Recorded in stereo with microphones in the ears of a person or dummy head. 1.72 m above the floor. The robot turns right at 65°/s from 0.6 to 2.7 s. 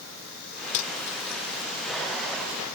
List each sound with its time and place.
0.7 s cutlery clinking: 70° left (ahead or behind); by 1.7 s 30° left (ahead or behind)